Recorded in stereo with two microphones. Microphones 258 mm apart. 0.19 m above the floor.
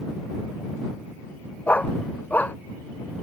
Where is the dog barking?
5° left (ahead or behind).